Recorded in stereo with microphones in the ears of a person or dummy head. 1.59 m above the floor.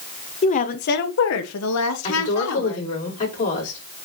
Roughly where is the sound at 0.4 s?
Left.